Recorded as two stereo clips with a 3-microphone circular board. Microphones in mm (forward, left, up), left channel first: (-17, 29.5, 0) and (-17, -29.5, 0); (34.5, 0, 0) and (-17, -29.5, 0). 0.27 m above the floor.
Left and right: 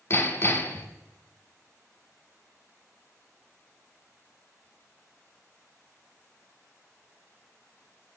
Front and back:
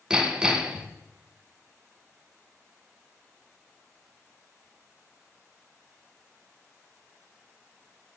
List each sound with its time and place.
0.1 s hammering: 135° left, 0.7 m